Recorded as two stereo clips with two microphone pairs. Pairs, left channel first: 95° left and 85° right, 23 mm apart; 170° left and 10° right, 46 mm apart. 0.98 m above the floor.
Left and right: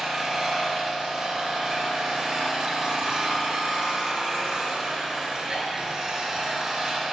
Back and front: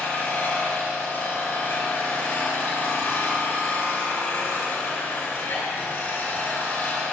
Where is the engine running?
150° right, 4 m.